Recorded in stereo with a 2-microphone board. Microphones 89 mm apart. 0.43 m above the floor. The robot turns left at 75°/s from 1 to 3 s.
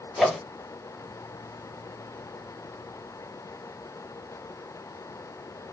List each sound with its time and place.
0.2 s a whoosh: centre (ahead or behind), 2 m